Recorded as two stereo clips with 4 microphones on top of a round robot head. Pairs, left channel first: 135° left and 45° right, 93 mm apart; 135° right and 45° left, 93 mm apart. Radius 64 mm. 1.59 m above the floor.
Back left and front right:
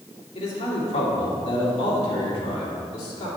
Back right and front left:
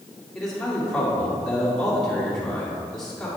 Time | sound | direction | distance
0.3 | a man speaking | 140° left | 2 m